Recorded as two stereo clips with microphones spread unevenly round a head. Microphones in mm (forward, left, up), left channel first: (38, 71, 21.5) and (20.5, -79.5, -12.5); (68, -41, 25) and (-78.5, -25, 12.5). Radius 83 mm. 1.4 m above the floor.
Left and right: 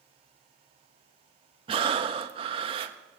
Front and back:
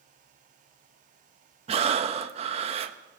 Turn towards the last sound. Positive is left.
turn(degrees=-155)